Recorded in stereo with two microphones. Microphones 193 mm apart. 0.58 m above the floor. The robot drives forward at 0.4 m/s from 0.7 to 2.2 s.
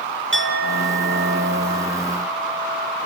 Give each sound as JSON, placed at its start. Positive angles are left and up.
{"t": 0.3, "sound": "a clink", "side_deg": -70, "distance_m": 1.0}